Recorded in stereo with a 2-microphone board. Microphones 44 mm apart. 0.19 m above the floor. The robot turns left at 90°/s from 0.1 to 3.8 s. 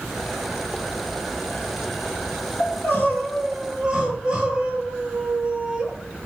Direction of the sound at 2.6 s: 85° left.